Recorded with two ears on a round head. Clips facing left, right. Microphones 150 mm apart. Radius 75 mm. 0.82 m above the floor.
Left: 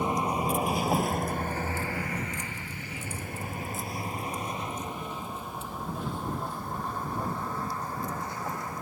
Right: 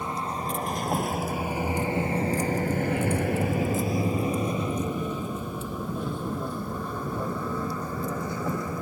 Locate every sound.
0.0 s a vehicle: 15° left (ahead or behind); by 8.8 s 75° right (ahead or behind)